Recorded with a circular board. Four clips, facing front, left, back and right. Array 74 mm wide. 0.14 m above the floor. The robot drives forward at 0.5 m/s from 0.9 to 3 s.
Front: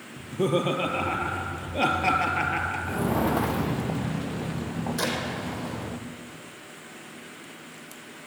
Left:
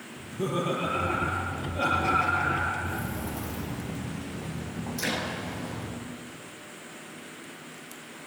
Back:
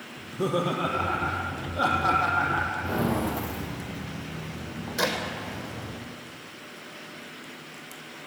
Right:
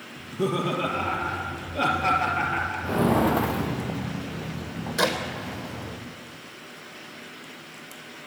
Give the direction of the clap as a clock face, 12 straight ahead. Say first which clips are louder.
Right 8 dB, back 4 dB; 3 o'clock.